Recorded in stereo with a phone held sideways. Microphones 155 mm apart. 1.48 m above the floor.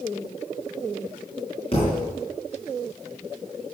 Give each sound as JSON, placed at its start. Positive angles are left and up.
{"t": 1.7, "sound": "a thud", "side_deg": 40, "distance_m": 4.0}